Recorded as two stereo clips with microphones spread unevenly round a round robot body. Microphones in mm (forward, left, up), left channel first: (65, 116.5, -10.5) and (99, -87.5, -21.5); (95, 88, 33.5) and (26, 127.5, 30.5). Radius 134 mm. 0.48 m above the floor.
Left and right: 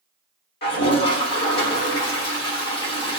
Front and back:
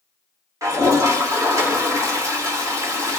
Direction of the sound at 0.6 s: 130° left.